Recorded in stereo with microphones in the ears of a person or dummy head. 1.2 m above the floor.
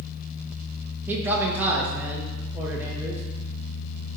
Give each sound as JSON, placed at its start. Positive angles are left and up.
{"t": 1.1, "sound": "a man speaking", "side_deg": -10, "distance_m": 0.9}